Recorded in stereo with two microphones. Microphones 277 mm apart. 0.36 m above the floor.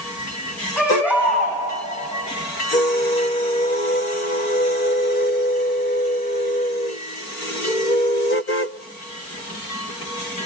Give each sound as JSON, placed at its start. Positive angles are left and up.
{"t": 0.8, "sound": "a baby crying", "side_deg": -5, "distance_m": 10.0}